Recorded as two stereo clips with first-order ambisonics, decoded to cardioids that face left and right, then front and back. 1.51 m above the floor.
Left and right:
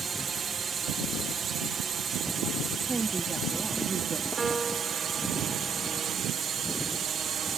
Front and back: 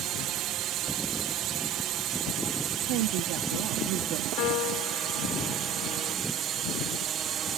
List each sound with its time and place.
0.0 s a drone: 150° right; by 7.6 s 135° right
2.9 s a woman speaking: 165° right
4.4 s a piano: 15° right